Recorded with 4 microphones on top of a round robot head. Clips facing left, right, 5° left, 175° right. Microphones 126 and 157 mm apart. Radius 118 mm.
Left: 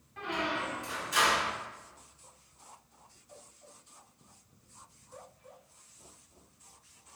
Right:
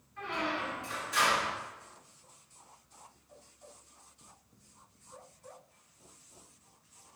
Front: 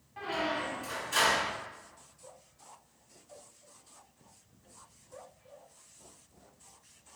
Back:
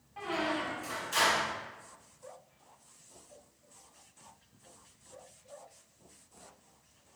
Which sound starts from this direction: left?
A squeak, at 0.2 s.